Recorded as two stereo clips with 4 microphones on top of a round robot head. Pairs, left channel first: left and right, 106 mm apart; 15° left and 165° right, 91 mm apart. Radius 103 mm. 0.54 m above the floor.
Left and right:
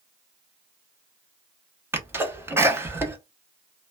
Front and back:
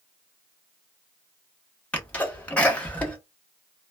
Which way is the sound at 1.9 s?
45° right.